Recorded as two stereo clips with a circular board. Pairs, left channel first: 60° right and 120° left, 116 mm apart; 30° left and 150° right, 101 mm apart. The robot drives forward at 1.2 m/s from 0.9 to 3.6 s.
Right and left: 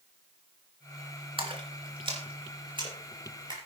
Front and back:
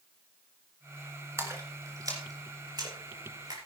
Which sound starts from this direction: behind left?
A splash, at 1.4 s.